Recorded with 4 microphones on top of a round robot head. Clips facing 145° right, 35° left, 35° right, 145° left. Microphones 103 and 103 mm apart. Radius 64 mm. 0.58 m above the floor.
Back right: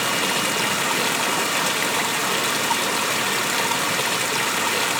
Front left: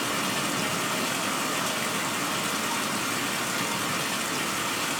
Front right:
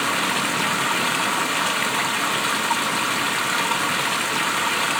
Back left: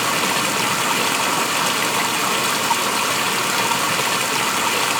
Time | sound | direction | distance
0.0 | running water | 160° right | 1.3 m